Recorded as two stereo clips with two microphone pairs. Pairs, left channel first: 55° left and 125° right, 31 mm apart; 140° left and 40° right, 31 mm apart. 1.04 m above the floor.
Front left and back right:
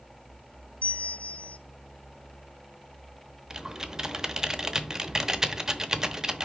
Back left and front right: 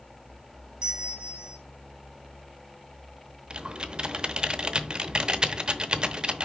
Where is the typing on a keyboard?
75° right, 0.8 m.